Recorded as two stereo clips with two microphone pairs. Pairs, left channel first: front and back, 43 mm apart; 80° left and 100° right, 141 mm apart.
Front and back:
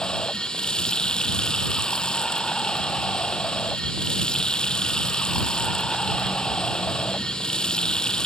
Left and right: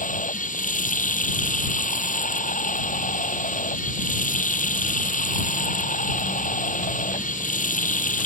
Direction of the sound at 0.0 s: 70° left.